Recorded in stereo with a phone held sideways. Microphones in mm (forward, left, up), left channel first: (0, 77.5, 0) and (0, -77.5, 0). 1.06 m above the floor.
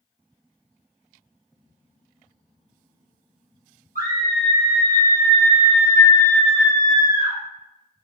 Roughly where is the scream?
Left.